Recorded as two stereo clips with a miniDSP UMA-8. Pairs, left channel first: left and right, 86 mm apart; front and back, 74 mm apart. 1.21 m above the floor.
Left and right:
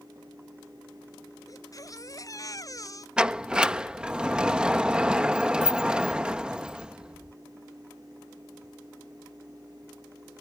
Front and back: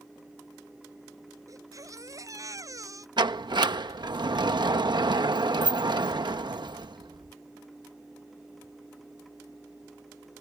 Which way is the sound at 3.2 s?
170° right.